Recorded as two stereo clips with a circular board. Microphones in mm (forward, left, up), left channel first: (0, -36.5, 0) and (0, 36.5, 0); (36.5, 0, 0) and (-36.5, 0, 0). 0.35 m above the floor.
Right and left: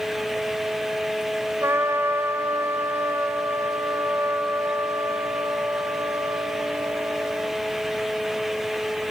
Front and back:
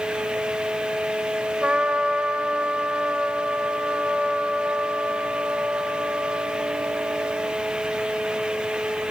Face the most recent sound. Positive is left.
turn(degrees=110)